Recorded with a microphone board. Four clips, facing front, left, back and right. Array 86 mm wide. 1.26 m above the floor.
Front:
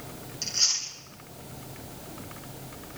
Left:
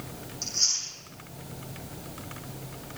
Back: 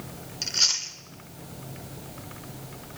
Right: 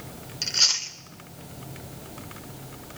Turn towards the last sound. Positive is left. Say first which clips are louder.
# right 6 dB, back 3 dB
turn(degrees=-120)